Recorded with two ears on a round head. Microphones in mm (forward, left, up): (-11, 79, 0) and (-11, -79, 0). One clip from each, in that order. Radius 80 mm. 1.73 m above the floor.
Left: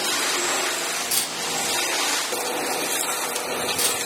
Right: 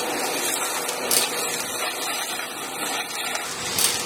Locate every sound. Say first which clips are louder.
1.1 s a camera shutter: right 2 dB; 30° right (ahead or behind), 0.9 m